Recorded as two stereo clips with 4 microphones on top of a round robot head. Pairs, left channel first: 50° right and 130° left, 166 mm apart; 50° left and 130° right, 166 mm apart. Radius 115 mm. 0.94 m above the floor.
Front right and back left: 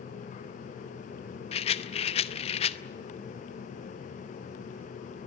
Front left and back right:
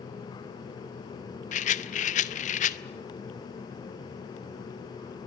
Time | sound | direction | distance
1.5 | a rattle | 5° left | 0.8 m